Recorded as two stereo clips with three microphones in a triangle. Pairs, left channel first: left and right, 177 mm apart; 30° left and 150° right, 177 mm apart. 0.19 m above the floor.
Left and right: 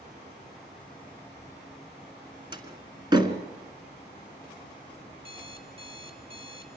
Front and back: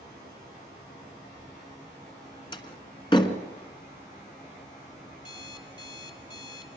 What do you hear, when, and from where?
2.5 s a door slam: 30° right, 1.4 m
5.2 s an alarm clock: 35° right, 1.6 m